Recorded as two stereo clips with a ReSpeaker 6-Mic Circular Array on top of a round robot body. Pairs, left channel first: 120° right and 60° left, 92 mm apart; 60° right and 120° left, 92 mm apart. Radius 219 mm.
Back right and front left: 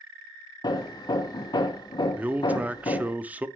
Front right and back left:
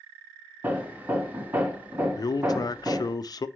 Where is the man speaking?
15° right, 0.6 m.